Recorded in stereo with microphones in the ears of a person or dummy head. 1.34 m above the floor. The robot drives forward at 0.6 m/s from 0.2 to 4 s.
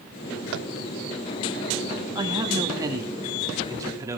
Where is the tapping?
70° right (ahead or behind), 0.6 m; by 0.7 s 75° right (ahead or behind), 0.6 m.